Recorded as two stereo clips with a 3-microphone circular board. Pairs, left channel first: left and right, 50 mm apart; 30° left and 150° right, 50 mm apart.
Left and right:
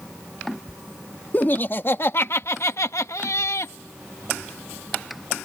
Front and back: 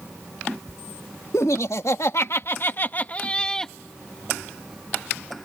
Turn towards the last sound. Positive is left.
turn(degrees=110)